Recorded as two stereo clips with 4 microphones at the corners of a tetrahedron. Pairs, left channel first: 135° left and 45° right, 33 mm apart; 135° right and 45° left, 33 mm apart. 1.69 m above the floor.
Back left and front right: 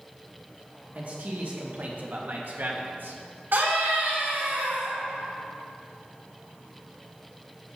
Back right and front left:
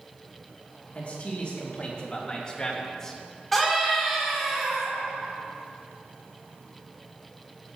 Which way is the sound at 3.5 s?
50° right.